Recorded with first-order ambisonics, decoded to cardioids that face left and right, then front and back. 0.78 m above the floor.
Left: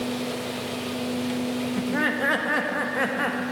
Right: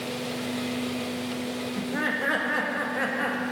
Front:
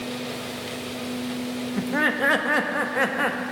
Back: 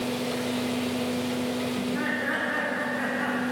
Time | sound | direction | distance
1.8 | laughter | 15° left | 0.9 m